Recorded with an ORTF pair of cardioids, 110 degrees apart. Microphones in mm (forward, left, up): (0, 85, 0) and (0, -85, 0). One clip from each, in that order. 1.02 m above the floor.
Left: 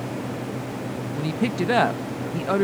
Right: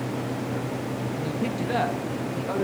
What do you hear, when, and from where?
1.1 s a woman speaking: 45° left, 0.9 m